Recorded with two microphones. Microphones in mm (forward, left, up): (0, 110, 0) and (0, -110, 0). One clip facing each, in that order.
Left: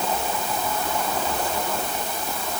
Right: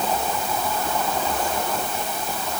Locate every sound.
Only background noise.